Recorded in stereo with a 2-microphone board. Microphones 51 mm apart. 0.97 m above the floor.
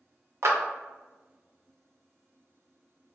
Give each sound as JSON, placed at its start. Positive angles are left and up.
{"t": 0.4, "sound": "a clap", "side_deg": -60, "distance_m": 0.8}